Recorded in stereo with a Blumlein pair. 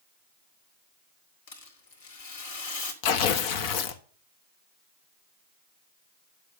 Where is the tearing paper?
45° left, 1.2 m.